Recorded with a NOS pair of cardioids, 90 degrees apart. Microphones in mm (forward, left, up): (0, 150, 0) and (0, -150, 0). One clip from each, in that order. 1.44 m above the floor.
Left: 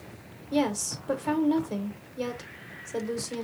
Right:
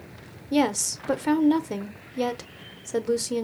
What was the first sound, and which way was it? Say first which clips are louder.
A woman speaking: right 4 dB; 35° right.